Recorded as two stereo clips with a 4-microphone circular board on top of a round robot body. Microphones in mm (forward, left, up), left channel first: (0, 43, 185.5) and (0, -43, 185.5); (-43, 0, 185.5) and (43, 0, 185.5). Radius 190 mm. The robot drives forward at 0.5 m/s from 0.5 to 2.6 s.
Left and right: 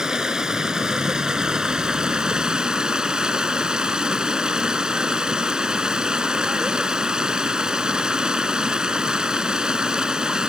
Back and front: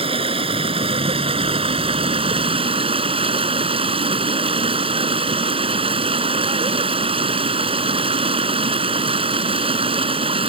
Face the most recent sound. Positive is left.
turn(degrees=-10)